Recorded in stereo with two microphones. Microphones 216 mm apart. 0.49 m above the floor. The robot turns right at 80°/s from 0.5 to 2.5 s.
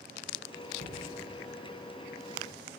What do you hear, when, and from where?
0.8 s knocking: 75° right (ahead or behind), 6.5 m